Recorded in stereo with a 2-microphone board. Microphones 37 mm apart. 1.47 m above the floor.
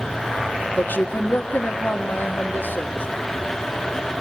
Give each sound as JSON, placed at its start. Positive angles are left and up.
{"t": 0.8, "sound": "a woman speaking", "side_deg": 65, "distance_m": 1.5}